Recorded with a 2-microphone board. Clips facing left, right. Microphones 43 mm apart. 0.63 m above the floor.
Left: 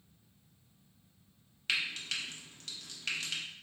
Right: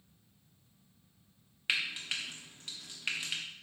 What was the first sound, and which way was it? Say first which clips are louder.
Frying: right 1 dB; 15° right (ahead or behind).